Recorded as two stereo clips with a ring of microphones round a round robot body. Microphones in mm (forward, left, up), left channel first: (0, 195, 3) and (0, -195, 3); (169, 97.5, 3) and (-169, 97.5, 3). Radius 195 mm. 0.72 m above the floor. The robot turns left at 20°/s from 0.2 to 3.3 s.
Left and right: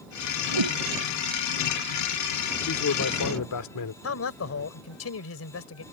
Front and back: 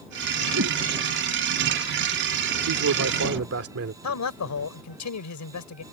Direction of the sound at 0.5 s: 115° right.